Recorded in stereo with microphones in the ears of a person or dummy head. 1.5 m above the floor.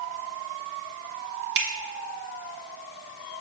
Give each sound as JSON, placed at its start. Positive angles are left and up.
{"t": 1.6, "sound": "a finger snap", "side_deg": -65, "distance_m": 1.3}